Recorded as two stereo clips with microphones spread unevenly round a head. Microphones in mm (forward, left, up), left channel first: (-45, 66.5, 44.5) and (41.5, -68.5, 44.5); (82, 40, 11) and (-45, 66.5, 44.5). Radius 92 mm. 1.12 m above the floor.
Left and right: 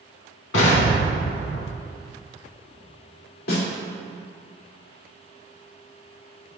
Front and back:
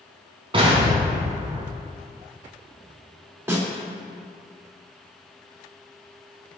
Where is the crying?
No crying in this recording.